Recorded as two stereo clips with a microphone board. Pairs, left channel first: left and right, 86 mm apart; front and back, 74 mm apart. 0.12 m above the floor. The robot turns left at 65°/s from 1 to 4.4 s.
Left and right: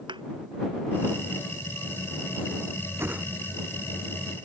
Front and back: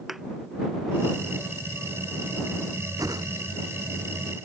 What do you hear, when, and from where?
0.1 s a thud: 95° right
3.0 s a whoosh: 145° right; by 3.3 s 165° right